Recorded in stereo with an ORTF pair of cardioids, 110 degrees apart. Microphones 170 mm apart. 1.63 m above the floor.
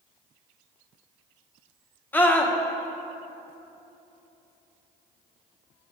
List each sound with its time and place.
2.1 s a scream: 10° left, 1.0 m